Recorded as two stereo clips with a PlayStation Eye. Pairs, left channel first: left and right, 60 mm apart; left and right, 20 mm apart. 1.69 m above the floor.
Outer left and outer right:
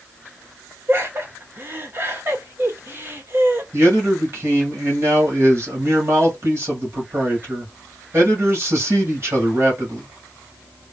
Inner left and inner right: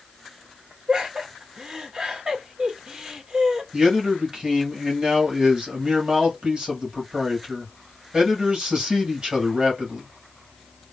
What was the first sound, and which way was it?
Laughter, 35° right (ahead or behind).